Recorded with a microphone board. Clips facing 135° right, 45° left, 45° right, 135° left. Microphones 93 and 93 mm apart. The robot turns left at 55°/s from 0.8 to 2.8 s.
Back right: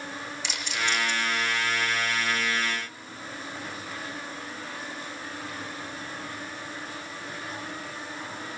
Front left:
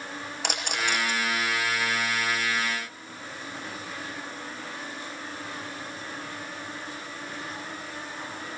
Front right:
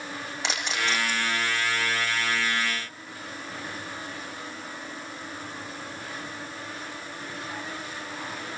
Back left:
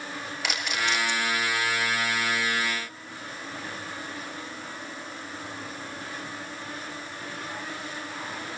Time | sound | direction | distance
0.4 | a camera shutter | 15° left | 4 m